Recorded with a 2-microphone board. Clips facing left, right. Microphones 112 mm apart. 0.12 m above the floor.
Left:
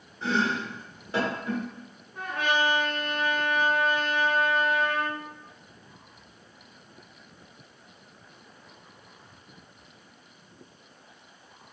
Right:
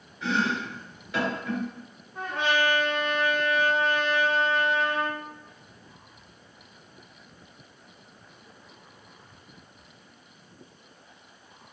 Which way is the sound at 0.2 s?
35° left (ahead or behind).